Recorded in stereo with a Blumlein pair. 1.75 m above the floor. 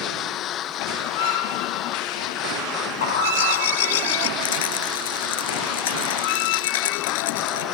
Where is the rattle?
55° left.